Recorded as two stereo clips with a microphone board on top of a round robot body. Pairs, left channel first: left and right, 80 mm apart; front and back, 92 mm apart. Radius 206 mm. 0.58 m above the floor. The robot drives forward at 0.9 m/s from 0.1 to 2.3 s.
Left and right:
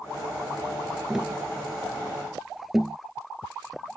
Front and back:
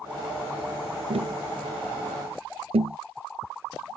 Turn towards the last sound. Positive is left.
turn(degrees=-175)